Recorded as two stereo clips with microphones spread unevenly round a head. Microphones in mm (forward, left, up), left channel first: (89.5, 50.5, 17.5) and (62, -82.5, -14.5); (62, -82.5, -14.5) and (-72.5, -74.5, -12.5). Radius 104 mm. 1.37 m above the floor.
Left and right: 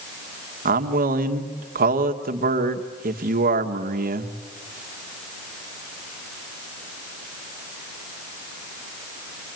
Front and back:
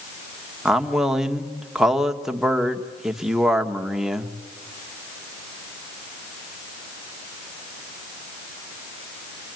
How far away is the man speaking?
About 1.5 m.